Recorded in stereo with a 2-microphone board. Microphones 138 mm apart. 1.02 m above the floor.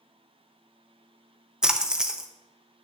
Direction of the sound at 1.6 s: 5° right (ahead or behind).